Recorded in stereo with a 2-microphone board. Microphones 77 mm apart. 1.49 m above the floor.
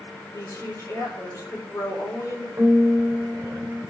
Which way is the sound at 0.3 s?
25° left (ahead or behind).